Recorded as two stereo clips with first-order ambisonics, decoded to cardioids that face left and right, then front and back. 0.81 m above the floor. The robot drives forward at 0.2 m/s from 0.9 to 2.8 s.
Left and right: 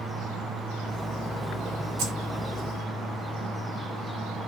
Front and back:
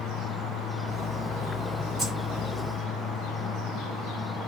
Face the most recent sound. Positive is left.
turn(degrees=-120)